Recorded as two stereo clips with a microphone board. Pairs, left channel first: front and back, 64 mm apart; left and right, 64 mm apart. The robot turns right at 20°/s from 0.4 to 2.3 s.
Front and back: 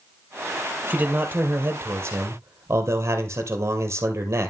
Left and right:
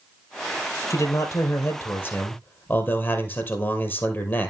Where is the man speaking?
115° left, 2.5 m; by 4.5 s 140° left, 2.5 m.